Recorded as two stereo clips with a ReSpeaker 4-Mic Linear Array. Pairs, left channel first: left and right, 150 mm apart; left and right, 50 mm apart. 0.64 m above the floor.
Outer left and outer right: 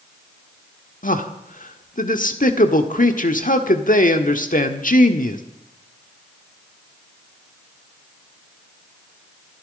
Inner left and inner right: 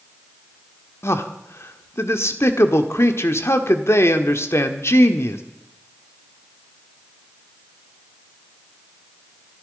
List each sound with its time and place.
1.0 s a man speaking: 60° left (ahead or behind), 1.5 m